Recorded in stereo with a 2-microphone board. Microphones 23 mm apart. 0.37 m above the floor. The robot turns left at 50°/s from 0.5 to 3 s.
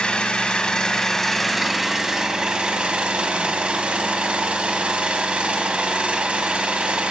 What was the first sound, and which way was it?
An engine running, 50° left.